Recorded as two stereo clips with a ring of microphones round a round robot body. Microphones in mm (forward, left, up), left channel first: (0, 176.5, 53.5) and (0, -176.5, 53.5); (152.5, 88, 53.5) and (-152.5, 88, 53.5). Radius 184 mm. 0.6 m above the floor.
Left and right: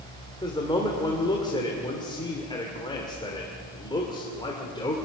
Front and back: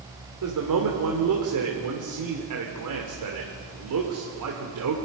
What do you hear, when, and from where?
0.4 s a man speaking: 165° left, 2.5 m